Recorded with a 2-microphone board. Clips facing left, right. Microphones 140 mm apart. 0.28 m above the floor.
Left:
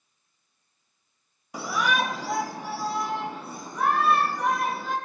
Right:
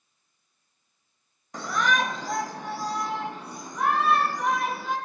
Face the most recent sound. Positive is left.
turn(degrees=5)  # may be behind; listen again after turning